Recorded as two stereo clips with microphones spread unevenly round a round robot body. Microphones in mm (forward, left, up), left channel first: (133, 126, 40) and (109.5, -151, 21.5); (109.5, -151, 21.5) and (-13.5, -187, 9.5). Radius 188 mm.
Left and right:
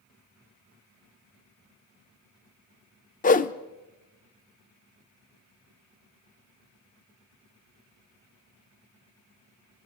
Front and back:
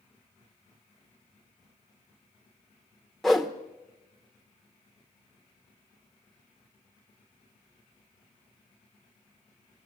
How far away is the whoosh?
About 0.7 m.